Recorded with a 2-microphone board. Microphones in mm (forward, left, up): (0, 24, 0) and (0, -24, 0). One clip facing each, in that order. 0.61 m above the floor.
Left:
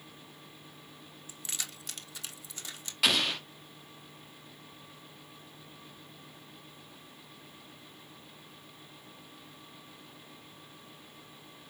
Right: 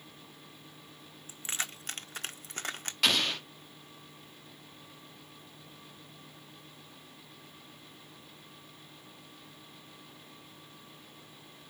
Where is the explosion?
5° left (ahead or behind), 1.3 m.